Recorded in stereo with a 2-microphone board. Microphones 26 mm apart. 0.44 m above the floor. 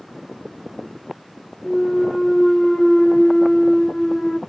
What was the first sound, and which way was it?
A clunk, 20° left (ahead or behind).